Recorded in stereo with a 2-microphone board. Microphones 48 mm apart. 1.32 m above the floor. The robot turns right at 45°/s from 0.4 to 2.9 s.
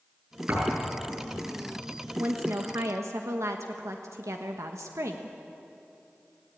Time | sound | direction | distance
0.5 | a thud | 40° right (ahead or behind) | 7 m
2.2 | a woman speaking | 130° right | 1.1 m